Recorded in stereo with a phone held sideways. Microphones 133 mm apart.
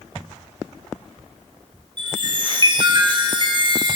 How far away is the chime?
About 4 m.